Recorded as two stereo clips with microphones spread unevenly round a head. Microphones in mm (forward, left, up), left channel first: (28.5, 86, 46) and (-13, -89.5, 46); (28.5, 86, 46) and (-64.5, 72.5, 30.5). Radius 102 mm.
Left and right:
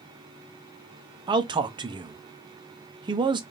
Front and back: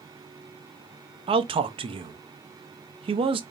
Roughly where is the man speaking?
Behind.